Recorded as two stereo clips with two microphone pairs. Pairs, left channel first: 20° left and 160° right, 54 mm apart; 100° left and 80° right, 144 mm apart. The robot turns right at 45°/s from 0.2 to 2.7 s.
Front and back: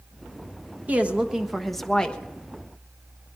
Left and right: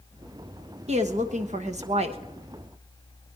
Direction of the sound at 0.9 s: 105° right.